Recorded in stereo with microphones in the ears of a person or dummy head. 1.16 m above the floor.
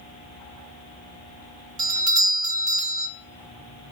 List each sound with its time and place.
1.8 s a doorbell: 25° right (ahead or behind), 0.9 m